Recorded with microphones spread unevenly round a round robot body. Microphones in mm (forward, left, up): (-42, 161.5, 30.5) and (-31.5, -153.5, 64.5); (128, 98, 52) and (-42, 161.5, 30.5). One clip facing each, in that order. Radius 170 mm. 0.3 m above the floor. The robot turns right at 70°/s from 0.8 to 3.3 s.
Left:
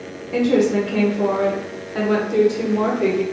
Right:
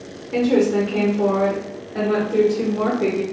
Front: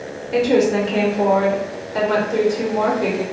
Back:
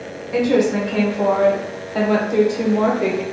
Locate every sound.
0.3 s a woman speaking: 10° left, 1.0 m; by 3.2 s straight behind, 1.0 m